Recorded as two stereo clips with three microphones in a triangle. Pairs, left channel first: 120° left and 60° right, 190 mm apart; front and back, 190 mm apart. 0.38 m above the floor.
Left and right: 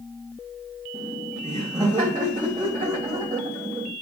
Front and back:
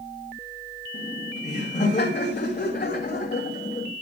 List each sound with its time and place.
0.9 s laughter: 10° right, 2.0 m